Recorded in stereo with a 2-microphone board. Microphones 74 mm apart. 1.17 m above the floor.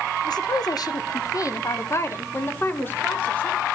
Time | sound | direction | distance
0.2 | a woman speaking | 65° left (ahead or behind) | 1.0 m